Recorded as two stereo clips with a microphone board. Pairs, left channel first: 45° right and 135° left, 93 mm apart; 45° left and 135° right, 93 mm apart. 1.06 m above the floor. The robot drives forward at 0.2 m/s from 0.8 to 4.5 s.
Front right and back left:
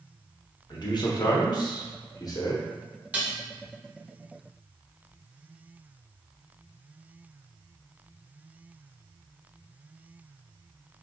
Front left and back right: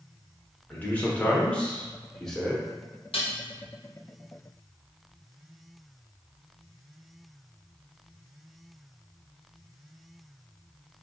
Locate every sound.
0.7 s a man speaking: 25° right, 0.9 m; by 2.6 s 40° right, 0.7 m
3.1 s dishes clattering: 60° left, 0.6 m; by 3.4 s 65° left, 0.5 m